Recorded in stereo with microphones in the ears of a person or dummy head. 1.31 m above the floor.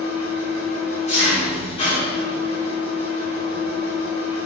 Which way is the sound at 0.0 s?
40° left (ahead or behind).